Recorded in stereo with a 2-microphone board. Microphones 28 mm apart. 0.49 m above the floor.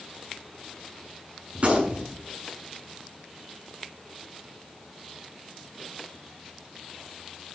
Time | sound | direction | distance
1.6 | a gunshot | 50° right (ahead or behind) | 7 m